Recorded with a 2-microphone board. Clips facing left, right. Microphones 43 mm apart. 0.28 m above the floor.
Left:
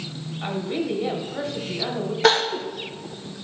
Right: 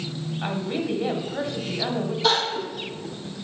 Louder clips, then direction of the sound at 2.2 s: Left 5 dB; 60° left (ahead or behind).